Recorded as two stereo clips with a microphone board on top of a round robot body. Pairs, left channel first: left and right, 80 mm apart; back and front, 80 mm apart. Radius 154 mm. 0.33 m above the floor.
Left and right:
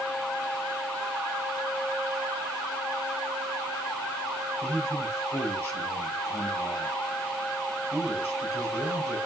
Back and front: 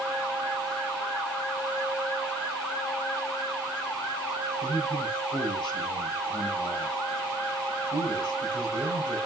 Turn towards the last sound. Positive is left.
turn(degrees=150)